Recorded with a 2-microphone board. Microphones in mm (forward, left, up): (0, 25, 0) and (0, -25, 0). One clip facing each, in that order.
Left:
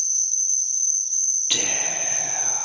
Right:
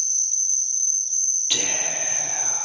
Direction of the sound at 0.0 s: 30° right (ahead or behind).